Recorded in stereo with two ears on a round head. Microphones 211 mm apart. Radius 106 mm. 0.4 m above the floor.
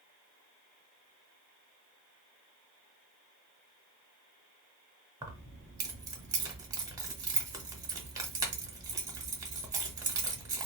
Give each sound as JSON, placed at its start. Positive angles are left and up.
{"t": 5.2, "sound": "keys jangling", "side_deg": -15, "distance_m": 0.7}